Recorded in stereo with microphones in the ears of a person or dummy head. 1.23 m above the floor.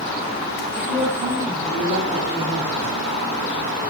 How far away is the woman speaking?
About 4 m.